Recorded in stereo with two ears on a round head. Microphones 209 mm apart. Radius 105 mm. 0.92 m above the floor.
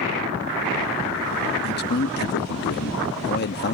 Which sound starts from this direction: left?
A man speaking, at 1.6 s.